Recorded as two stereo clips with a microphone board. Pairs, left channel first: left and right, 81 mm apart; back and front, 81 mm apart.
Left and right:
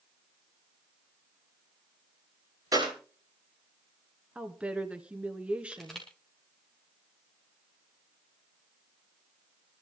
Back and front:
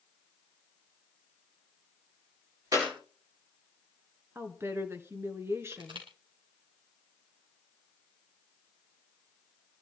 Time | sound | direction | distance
2.7 | a clap | 45° right | 8.5 m
4.3 | a woman speaking | 20° right | 2.0 m
5.7 | crushing | 5° left | 5 m